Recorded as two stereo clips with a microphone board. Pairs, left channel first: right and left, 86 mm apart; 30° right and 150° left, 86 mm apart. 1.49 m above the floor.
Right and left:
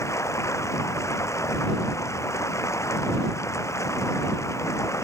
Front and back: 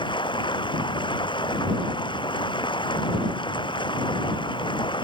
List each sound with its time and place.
0.0 s running water: 40° right